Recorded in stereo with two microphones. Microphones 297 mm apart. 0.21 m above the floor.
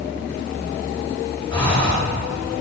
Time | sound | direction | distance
1.5 | breathing | 15° left (ahead or behind) | 2.5 m